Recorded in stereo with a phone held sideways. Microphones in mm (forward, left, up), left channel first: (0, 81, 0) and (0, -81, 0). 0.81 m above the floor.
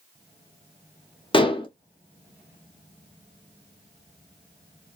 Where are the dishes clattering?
30° left (ahead or behind), 0.7 m.